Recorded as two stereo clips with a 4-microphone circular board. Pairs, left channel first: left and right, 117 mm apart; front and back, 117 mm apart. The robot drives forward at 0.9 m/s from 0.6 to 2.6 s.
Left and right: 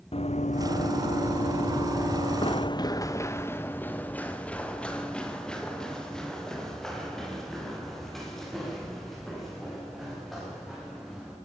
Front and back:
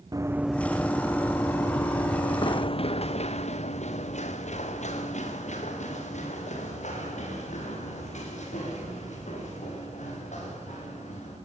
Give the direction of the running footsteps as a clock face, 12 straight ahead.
8 o'clock.